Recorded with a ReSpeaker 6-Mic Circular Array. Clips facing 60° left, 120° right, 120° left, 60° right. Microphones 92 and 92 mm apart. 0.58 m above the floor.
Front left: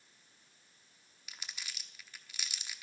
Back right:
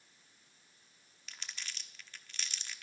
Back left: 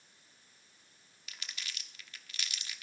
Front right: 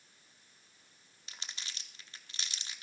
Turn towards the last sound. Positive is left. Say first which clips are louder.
# even, back left 1 dB
turn(degrees=-20)